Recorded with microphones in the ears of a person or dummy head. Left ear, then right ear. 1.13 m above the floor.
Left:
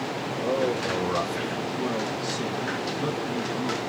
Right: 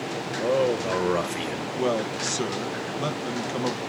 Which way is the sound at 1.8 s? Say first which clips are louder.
Right 7 dB; 65° right (ahead or behind).